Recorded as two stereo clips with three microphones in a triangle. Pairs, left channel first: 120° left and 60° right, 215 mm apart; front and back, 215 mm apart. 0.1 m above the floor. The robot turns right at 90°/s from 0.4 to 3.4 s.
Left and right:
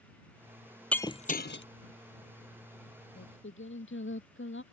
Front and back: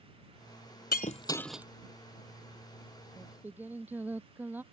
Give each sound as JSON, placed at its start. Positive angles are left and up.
{"t": 0.9, "sound": "breaking glass", "azimuth_deg": 35}
{"t": 3.2, "sound": "singing", "azimuth_deg": 80}